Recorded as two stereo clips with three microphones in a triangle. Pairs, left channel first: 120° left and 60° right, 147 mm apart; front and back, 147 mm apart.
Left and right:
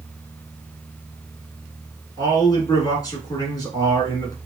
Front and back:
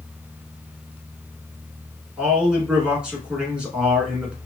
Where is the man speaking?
105° left, 1.2 m.